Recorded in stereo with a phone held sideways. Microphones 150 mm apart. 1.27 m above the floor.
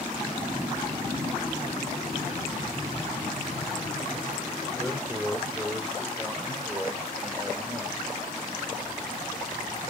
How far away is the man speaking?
About 4.5 m.